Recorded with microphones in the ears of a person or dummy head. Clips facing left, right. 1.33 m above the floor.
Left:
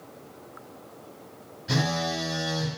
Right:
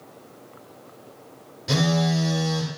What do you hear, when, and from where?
1.7 s a phone buzzing: 75° right (ahead or behind), 2.5 m